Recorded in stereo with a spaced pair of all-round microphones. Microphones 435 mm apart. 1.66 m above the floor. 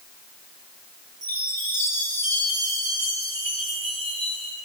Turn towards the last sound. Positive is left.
turn(degrees=-65)  # may be behind; listen again after turning